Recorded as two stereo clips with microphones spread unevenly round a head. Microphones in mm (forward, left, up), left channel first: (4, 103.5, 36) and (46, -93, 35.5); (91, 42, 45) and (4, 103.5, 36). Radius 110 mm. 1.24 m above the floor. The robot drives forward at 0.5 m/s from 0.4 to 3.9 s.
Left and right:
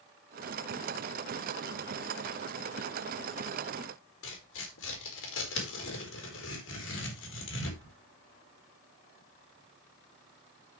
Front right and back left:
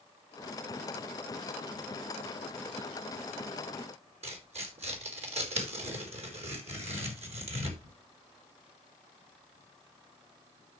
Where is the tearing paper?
130° left, 4 m.